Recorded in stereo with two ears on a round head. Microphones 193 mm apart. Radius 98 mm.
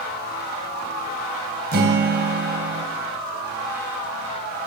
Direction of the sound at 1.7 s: 45° right (ahead or behind).